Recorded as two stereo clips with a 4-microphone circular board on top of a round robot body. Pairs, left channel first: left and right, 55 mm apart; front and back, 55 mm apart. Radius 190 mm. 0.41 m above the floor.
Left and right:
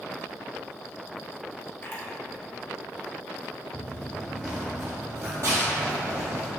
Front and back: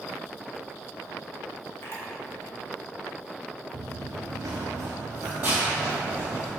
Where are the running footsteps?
130° left, 0.8 m; by 6.5 s 110° right, 2 m.